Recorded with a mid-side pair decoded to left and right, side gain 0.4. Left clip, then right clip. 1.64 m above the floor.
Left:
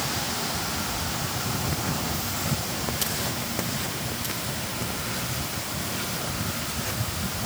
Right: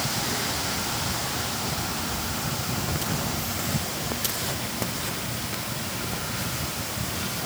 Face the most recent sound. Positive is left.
No sound to turn to.